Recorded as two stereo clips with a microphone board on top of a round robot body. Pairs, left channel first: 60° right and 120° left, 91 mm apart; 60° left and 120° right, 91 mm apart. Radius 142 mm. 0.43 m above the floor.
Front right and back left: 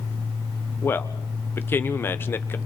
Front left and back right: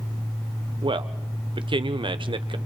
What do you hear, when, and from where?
0.8 s a man speaking: 125° right, 1.5 m